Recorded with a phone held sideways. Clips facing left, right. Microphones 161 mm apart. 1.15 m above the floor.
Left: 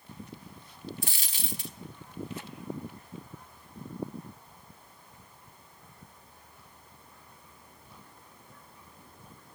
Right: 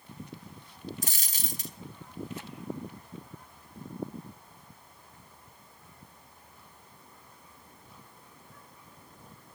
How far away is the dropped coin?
About 1.0 m.